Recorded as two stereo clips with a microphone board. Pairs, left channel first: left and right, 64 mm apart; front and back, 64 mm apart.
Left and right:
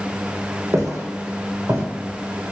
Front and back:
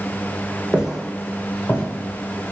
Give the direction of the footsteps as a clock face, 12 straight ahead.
4 o'clock.